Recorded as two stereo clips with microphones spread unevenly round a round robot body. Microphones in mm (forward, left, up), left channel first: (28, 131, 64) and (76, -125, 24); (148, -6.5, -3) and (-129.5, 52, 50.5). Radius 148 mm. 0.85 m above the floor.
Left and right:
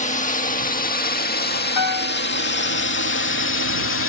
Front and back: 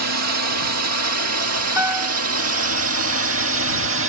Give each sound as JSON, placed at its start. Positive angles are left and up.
{"t": 0.0, "sound": "a drone", "azimuth_deg": 160}
{"t": 1.8, "sound": "a piano", "azimuth_deg": 90}